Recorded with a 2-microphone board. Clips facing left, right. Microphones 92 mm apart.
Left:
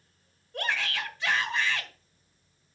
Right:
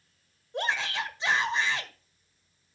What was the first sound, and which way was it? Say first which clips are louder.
A shout: right 2 dB; 20° right (ahead or behind).